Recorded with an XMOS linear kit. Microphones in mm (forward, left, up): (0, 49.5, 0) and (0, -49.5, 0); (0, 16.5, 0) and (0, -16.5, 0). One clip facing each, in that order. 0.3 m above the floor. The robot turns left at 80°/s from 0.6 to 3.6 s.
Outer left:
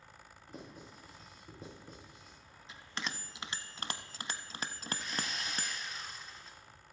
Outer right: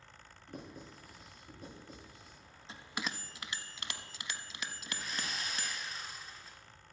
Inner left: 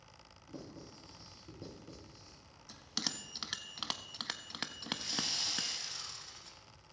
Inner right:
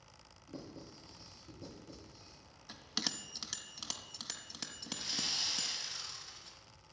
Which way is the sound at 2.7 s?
30° right (ahead or behind).